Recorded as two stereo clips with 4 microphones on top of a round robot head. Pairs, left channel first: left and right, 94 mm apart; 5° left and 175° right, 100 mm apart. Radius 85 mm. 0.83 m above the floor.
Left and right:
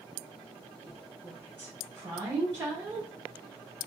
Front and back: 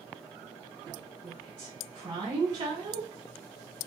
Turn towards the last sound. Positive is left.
turn(degrees=-145)